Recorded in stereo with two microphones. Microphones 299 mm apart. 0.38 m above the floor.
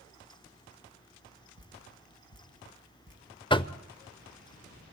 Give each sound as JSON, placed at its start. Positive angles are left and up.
{"t": 1.6, "sound": "dripping", "side_deg": -45, "distance_m": 4.0}
{"t": 3.5, "sound": "knocking", "side_deg": 15, "distance_m": 0.6}